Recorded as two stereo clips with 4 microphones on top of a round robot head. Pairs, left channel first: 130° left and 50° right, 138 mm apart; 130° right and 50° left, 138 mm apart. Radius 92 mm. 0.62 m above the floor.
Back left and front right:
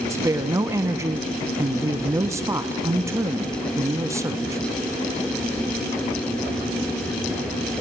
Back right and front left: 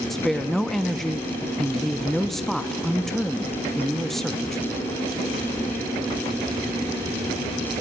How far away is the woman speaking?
About 0.7 m.